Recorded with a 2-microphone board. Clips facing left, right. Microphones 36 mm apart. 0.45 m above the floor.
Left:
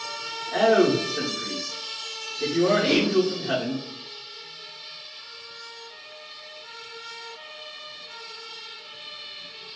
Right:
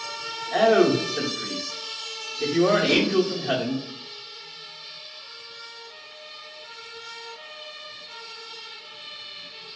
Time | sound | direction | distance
0.5 | a man speaking | 20° right (ahead or behind) | 0.7 m
2.9 | a whoosh | 25° left (ahead or behind) | 0.6 m